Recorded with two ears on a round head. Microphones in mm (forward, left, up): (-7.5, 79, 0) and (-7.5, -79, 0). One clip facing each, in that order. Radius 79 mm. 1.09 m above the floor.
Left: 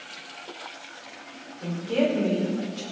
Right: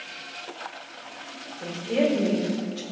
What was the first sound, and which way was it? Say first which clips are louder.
A woman speaking: even; 25° right (ahead or behind).